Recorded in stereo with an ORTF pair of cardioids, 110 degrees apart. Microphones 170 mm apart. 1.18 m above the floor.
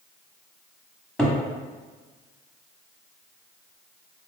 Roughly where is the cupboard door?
Ahead.